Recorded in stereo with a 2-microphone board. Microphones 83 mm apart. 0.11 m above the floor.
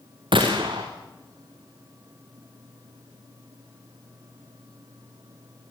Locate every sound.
0.3 s a gunshot: 80° right, 4.5 m